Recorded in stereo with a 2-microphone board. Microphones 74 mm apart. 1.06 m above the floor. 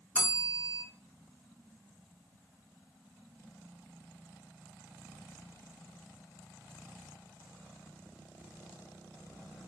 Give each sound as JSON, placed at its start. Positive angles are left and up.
{"t": 0.1, "sound": "a bell", "side_deg": 30, "distance_m": 1.6}